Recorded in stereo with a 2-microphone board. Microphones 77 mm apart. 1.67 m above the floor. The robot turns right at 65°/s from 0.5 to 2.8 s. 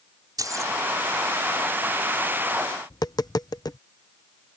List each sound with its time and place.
0.4 s keys jangling: 50° right (ahead or behind); by 0.7 s 40° right (ahead or behind)
2.9 s tapping: 60° left (ahead or behind)